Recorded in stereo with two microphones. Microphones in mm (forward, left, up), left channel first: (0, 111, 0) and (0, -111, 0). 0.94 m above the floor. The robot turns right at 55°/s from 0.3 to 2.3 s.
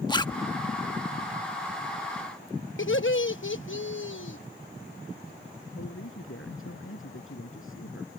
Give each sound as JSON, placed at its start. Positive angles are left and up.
{"t": 0.1, "sound": "a zipper", "side_deg": 20}
{"t": 2.8, "sound": "laughter", "side_deg": 70}
{"t": 5.8, "sound": "a man speaking", "side_deg": 90}